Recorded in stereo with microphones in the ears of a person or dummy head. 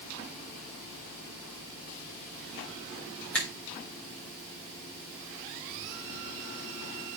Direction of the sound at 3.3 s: 5° left (ahead or behind).